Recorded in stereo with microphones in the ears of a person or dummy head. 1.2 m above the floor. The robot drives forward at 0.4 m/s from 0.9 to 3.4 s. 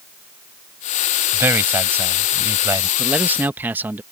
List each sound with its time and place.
1.3 s a man speaking: 15° right (ahead or behind)
3.0 s a man speaking: 10° right (ahead or behind); by 4.0 s 15° right (ahead or behind)